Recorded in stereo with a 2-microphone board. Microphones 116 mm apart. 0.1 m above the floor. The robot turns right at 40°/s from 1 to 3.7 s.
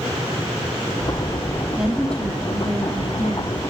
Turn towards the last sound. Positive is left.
turn(degrees=70)